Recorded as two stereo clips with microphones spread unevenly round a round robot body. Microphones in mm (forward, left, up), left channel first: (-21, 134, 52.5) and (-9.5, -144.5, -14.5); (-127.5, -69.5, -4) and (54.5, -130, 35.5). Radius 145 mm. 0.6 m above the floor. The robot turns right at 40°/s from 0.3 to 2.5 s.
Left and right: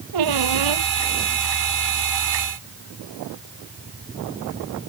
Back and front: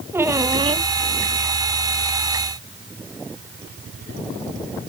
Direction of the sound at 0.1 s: 95° right.